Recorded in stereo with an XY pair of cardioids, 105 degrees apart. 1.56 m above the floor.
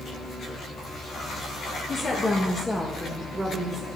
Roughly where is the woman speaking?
Ahead left.